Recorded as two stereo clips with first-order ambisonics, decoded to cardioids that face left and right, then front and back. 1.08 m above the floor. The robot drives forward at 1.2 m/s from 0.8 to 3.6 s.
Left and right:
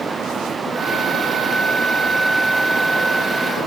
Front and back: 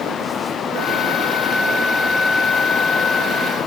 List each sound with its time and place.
Only background noise.